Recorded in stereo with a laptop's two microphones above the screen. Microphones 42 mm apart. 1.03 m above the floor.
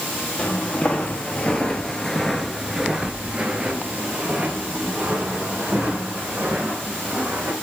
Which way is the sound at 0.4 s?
25° left (ahead or behind).